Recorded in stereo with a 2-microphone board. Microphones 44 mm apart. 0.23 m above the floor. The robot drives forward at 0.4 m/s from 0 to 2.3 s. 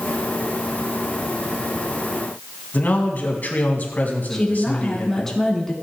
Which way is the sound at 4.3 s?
10° left (ahead or behind).